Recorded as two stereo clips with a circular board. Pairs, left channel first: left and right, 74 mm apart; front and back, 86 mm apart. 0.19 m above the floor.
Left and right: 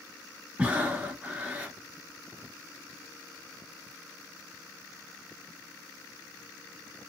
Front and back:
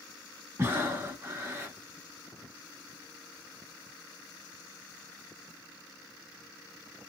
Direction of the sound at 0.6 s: 140° right.